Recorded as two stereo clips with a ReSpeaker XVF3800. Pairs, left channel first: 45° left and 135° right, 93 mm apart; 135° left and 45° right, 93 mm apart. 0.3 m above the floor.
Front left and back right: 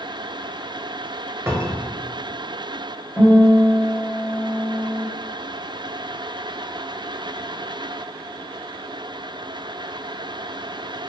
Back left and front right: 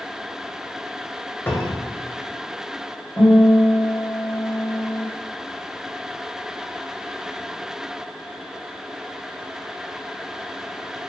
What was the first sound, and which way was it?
A cupboard door, 175° right.